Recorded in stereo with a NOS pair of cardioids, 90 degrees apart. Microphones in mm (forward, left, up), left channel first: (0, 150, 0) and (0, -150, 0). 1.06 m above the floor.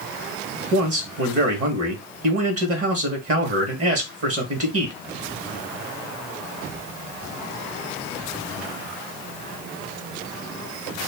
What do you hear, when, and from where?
0.7 s a man speaking: 55° right, 1.2 m